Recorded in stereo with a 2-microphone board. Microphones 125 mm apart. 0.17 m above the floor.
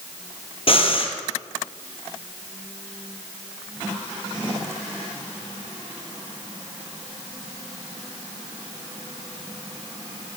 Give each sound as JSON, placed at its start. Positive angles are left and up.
{"t": 0.7, "sound": "breathing", "side_deg": 50, "distance_m": 1.3}